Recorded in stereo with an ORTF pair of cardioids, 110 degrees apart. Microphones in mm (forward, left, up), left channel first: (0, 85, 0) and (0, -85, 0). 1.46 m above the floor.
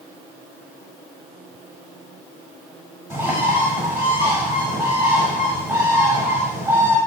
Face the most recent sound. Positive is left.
turn(degrees=-10)